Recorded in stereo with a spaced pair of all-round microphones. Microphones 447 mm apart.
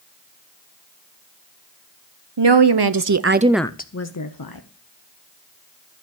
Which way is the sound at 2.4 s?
70° right (ahead or behind).